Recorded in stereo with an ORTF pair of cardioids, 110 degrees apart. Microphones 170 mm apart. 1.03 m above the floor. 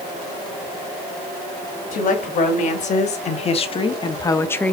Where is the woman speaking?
55° left, 2.5 m; by 4.7 s 10° left, 1.0 m.